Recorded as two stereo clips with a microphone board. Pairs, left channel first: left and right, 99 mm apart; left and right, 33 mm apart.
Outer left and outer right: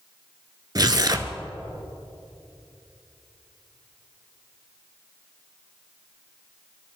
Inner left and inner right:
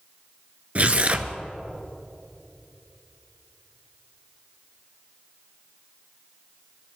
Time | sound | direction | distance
0.8 | tearing paper | 40° right (ahead or behind) | 1.0 m